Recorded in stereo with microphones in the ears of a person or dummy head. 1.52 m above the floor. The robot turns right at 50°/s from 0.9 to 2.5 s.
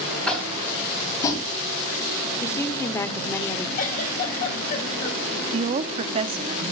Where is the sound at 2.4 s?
15° left (ahead or behind), 0.8 m; by 3.7 s 10° left (ahead or behind), 0.8 m.